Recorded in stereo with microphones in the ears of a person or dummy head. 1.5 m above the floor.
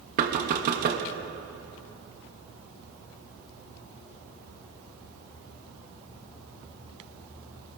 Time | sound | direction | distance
0.2 | knocking | 50° right (ahead or behind) | 1.2 m